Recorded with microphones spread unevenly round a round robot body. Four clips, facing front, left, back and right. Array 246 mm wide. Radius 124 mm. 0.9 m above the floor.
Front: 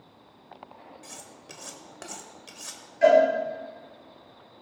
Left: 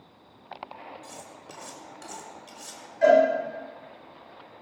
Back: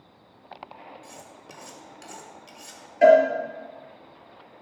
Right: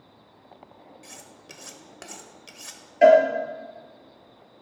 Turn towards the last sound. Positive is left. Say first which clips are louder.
# right 4 dB, back 3 dB
turn(degrees=-130)